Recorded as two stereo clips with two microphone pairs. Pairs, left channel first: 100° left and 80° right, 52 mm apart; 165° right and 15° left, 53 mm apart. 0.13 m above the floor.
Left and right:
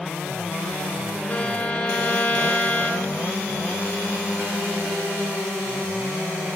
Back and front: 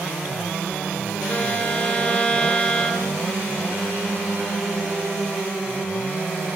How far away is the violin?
About 0.7 m.